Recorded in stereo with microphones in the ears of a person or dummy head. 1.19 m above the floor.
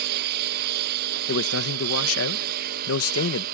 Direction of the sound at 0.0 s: 60° right (ahead or behind).